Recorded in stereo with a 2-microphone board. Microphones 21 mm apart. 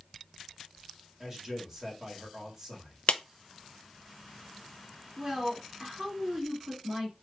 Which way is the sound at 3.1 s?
75° left (ahead or behind).